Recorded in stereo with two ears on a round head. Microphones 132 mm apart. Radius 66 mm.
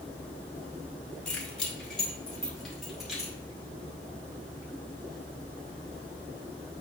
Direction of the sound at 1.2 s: 5° left (ahead or behind).